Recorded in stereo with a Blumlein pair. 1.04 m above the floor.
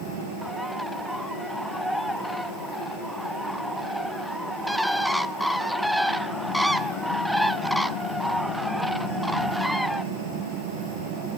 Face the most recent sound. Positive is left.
turn(degrees=0)